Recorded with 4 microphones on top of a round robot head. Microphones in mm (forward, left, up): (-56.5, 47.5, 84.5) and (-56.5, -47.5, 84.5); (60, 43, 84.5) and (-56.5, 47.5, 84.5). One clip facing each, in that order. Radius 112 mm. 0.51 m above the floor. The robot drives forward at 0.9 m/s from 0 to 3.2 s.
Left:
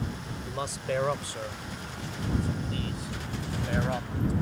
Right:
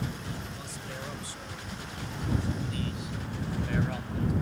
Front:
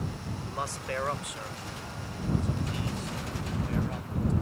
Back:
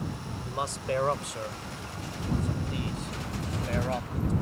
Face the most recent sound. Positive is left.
turn(degrees=145)